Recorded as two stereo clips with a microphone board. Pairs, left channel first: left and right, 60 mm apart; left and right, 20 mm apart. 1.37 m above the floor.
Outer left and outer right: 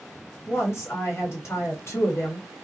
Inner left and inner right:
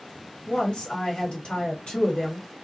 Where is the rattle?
No rattle in this recording.